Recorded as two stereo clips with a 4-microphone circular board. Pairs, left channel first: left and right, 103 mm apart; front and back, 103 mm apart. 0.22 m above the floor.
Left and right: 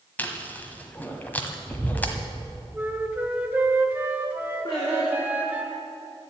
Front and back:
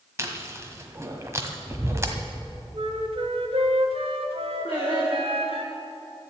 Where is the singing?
40° left, 5.5 m.